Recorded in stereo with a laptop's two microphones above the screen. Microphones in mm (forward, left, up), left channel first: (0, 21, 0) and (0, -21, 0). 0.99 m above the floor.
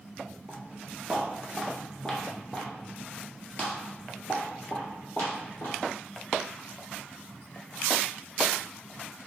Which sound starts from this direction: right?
Footsteps, at 0.5 s.